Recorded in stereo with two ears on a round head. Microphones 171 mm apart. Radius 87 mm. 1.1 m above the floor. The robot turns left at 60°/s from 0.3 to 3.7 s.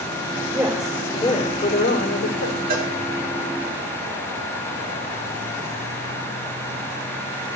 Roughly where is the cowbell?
Right.